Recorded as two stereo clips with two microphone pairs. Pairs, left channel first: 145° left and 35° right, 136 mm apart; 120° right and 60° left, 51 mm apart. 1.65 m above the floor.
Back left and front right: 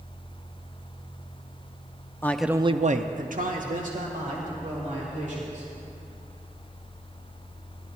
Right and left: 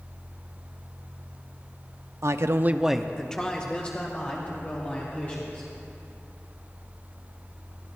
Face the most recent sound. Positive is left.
turn(degrees=-60)